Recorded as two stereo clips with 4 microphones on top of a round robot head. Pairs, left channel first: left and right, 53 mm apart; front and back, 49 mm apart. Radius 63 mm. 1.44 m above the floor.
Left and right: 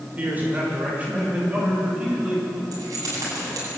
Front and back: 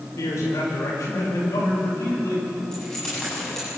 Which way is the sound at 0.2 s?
30° right.